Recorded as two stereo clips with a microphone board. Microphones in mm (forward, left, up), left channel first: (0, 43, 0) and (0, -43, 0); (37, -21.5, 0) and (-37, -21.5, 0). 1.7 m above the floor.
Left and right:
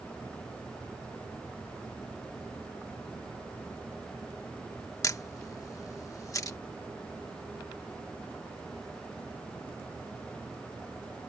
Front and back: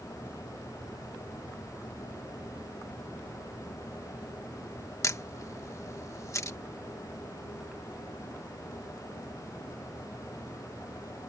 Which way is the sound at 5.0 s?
40° left.